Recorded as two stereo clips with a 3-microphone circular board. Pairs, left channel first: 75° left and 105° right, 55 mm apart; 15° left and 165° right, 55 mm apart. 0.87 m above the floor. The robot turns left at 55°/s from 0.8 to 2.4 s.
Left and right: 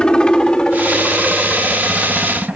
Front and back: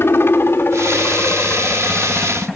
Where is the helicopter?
5° left; by 2.6 s 70° right.